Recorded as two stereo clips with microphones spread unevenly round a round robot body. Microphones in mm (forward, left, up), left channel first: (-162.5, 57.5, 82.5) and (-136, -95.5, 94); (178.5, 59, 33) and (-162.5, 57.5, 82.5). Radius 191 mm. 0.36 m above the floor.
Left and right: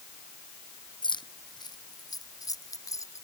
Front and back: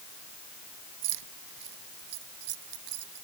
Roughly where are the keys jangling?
Behind.